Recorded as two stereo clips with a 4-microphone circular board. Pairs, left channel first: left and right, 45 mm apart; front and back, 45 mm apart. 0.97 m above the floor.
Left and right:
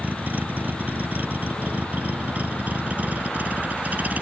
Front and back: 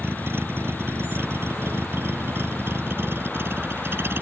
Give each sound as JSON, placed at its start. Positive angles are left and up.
{"t": 0.0, "sound": "a vehicle", "azimuth_deg": -145}